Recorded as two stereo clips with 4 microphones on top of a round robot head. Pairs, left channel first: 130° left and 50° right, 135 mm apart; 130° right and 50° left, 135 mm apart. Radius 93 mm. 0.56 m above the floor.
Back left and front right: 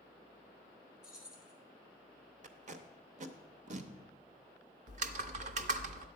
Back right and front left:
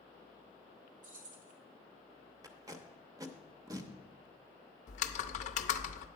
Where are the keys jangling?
35° left, 1.8 m.